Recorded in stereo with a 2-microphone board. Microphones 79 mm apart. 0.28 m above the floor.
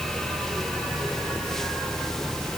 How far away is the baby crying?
I don't hear a baby crying.